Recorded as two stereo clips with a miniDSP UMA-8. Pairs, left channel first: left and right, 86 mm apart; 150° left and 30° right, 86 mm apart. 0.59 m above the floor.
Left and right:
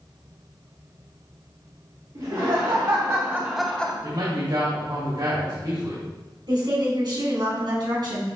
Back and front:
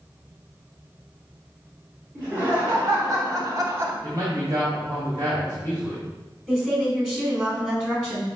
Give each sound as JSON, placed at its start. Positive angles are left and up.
{"t": 2.1, "sound": "laughter", "azimuth_deg": -90, "distance_m": 2.0}
{"t": 4.0, "sound": "a man speaking", "azimuth_deg": -70, "distance_m": 3.0}
{"t": 6.5, "sound": "a woman speaking", "azimuth_deg": -105, "distance_m": 2.5}